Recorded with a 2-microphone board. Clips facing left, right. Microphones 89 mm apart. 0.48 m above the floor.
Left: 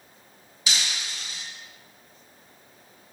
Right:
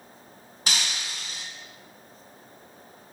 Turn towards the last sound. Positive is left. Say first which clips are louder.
# even
turn(degrees=-55)  # may be behind; listen again after turning